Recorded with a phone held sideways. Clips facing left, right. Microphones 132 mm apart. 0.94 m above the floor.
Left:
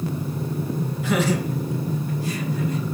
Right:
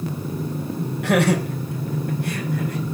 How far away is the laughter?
About 4.5 m.